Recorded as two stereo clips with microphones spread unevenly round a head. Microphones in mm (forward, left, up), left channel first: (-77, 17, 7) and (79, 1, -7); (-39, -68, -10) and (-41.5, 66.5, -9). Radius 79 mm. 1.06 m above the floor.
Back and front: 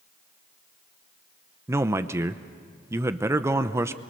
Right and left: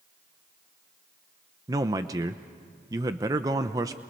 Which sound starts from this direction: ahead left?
A man speaking, at 1.7 s.